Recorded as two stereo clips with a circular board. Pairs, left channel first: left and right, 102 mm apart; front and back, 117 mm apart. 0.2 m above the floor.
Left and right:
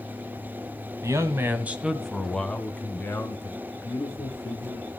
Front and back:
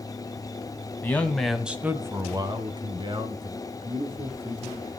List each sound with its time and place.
1.0 s a man speaking: 60° right, 1.6 m; by 4.9 s 150° left, 4 m